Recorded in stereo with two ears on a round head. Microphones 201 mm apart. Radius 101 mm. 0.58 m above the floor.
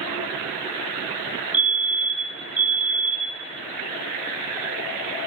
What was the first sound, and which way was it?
A fire alarm, 5° right (ahead or behind).